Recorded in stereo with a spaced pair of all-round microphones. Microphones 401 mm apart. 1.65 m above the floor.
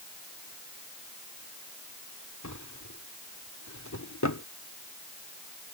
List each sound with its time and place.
2.4 s a drawer: 45° left (ahead or behind)